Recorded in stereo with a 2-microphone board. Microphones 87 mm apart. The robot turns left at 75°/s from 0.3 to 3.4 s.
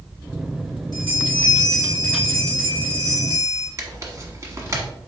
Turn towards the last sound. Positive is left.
turn(degrees=-35)  # may be behind; listen again after turning